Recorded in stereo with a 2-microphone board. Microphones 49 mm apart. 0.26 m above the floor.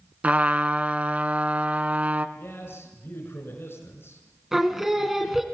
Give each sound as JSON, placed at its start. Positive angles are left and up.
{"t": 0.2, "sound": "a trumpet", "side_deg": -30, "distance_m": 0.9}
{"t": 2.4, "sound": "a man speaking", "side_deg": 55, "distance_m": 3.5}
{"t": 4.5, "sound": "singing", "side_deg": -10, "distance_m": 1.8}